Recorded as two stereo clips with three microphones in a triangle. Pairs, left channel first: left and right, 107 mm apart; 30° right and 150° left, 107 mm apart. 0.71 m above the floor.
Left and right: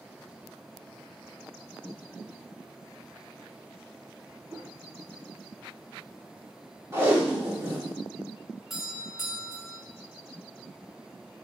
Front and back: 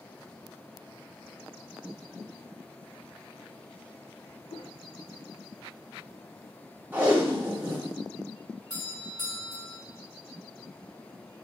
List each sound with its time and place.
4.5 s a whoosh: 25° right, 0.9 m
6.9 s tape being pulled: 145° right, 2.5 m
8.7 s a doorbell: 5° right, 2.5 m